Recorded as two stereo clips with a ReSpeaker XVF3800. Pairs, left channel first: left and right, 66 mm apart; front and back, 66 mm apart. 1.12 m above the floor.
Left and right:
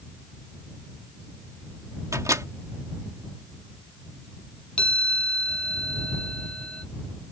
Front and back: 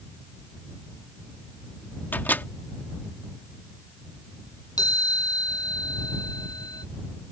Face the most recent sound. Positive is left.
turn(degrees=15)